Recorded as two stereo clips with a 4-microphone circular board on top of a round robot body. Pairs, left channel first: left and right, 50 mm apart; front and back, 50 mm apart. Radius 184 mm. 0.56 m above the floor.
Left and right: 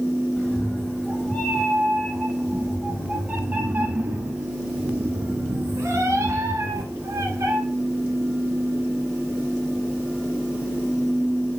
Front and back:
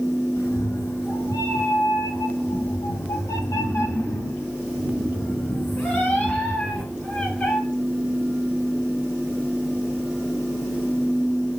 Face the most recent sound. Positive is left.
turn(degrees=-70)